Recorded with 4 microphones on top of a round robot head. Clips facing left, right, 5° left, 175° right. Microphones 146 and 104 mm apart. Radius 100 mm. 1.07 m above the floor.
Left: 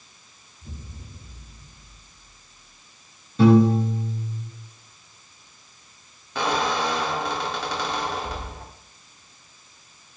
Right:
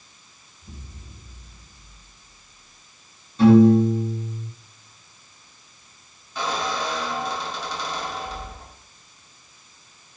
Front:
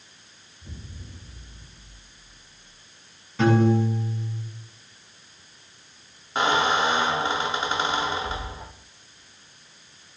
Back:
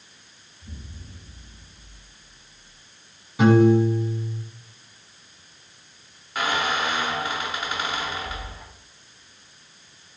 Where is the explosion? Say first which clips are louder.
Left 2 dB, even; 70° left, 3 m.